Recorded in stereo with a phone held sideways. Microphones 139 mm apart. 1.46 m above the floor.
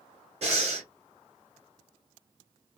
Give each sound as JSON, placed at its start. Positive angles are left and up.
{"t": 0.4, "sound": "breathing", "side_deg": -50, "distance_m": 1.3}